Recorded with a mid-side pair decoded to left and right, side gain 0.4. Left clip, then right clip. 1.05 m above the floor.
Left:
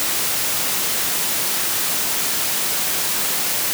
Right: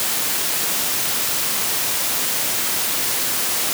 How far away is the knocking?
I don't hear knocking.